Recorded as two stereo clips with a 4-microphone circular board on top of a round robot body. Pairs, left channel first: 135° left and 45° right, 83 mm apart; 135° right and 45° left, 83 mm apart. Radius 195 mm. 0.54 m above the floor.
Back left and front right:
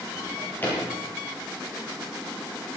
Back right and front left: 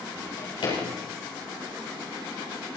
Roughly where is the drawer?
Behind.